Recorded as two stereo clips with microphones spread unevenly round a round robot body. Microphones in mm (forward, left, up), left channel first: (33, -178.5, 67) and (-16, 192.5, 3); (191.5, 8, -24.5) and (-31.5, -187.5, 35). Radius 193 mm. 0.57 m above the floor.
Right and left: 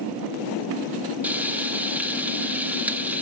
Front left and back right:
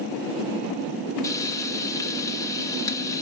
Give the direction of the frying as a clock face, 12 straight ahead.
10 o'clock.